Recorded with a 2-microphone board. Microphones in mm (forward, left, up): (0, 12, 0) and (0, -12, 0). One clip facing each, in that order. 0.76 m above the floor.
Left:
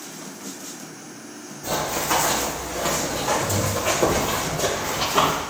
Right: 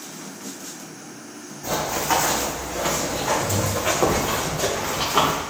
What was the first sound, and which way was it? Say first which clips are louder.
Running footsteps: right 1 dB; 45° right (ahead or behind).